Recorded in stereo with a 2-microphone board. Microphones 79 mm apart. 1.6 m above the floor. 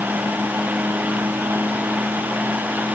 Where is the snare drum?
No snare drum in this recording.